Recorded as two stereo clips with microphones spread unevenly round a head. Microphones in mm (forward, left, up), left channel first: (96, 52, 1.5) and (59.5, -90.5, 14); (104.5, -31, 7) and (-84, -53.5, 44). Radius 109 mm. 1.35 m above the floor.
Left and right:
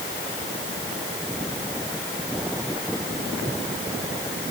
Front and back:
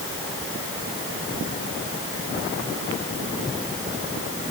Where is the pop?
I don't hear a pop.